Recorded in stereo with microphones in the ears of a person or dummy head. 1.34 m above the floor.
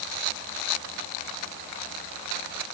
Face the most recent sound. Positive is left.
No sound to turn to.